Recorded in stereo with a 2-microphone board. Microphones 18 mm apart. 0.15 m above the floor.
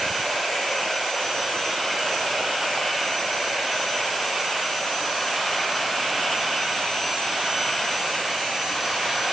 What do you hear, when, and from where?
Only background noise.